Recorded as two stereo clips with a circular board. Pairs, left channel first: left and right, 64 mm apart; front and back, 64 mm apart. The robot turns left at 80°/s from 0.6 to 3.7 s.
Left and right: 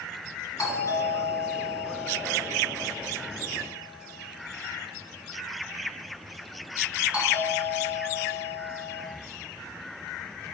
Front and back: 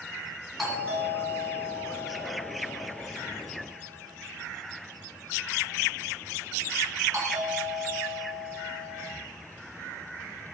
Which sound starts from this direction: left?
A doorbell, at 0.6 s.